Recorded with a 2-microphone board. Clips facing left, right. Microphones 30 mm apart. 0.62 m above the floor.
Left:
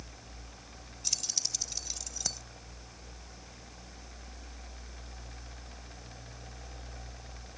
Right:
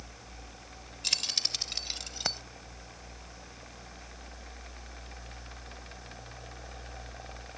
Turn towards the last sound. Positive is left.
turn(degrees=-35)  # may be behind; listen again after turning